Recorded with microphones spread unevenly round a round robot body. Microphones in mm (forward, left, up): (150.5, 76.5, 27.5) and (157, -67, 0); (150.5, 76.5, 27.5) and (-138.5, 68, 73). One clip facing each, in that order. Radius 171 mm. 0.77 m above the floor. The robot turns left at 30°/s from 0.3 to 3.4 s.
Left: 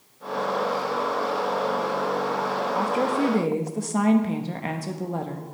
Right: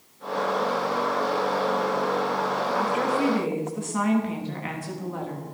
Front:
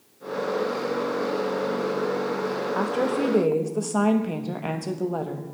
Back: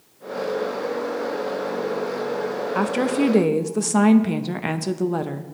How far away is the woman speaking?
About 0.9 m.